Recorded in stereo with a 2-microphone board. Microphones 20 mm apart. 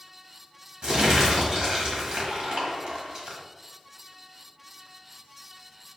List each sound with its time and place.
0.8 s crumpling: 45° right (ahead or behind), 1.4 m